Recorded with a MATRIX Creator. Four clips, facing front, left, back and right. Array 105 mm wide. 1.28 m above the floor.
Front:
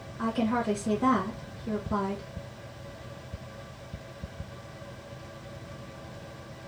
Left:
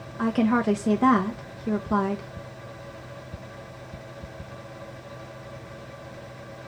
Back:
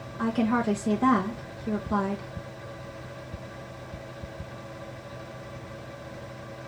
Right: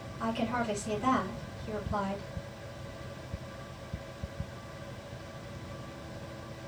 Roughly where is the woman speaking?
Left.